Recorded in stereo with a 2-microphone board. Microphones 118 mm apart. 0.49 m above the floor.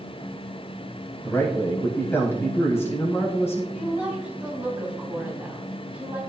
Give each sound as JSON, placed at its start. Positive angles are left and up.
{"t": 1.2, "sound": "a man speaking", "side_deg": 20, "distance_m": 3.5}
{"t": 3.7, "sound": "a woman speaking", "side_deg": -10, "distance_m": 3.5}